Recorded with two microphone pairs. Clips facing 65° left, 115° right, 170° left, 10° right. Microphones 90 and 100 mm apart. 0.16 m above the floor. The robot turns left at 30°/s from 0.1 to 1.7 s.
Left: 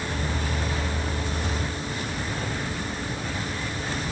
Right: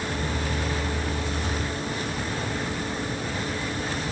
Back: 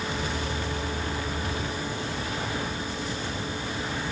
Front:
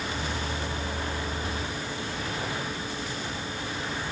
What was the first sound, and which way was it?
Only background noise.